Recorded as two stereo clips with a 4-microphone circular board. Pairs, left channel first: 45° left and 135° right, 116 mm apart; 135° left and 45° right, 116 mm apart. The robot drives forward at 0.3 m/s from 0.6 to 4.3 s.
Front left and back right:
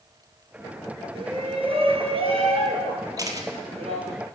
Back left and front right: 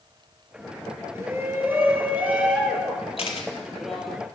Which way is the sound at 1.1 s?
110° right.